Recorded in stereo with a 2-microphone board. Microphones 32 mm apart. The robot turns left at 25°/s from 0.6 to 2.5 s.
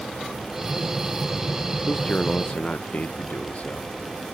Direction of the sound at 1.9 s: 25° left (ahead or behind).